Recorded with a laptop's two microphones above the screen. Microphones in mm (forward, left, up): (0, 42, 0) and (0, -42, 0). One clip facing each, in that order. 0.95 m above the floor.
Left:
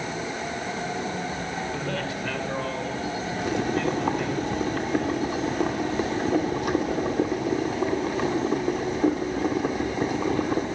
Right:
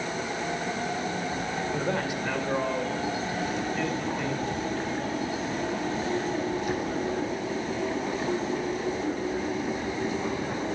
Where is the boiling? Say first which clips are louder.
Left 7 dB; 80° left, 2.5 m.